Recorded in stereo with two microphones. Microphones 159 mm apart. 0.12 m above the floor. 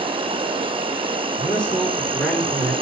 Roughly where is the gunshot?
No gunshot in this recording.